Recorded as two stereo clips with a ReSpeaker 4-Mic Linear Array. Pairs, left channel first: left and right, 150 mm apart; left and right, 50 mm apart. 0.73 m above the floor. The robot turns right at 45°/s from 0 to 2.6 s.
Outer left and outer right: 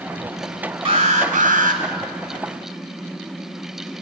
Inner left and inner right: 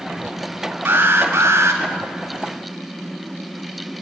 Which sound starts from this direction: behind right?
An alarm, at 0.8 s.